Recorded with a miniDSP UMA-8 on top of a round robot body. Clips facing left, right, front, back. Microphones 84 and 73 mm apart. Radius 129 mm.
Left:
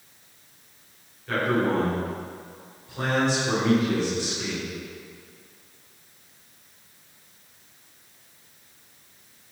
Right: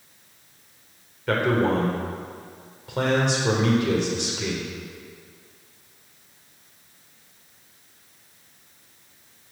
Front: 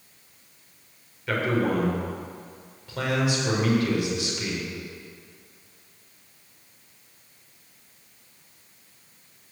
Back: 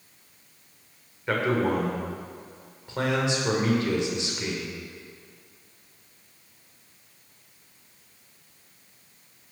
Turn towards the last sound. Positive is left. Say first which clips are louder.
# right 2 dB, even
turn(degrees=-115)